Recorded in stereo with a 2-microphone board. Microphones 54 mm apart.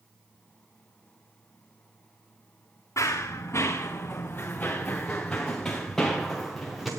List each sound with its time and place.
3.0 s running footsteps: 65° left (ahead or behind), 2 m; by 6.9 s centre (ahead or behind), 3 m